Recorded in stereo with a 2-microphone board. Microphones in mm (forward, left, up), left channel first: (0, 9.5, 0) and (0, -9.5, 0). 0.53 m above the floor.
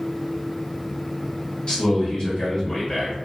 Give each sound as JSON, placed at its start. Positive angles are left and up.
{"t": 1.7, "sound": "a man speaking", "side_deg": 40, "distance_m": 1.5}